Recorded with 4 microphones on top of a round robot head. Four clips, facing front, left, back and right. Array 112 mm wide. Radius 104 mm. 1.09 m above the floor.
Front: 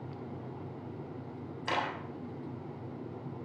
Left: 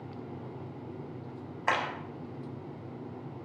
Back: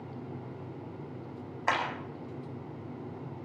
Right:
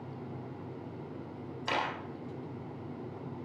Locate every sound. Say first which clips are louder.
1.7 s a clap: left 3 dB, back 3 dB; 140° left, 9 m